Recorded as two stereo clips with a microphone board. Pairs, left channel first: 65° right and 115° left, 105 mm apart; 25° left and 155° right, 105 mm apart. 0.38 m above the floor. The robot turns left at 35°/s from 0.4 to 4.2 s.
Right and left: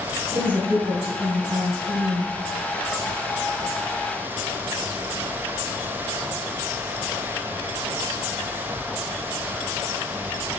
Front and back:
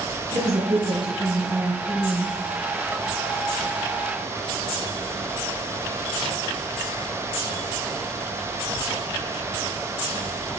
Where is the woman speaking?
175° right, 4 m; by 2.4 s 115° left, 4 m.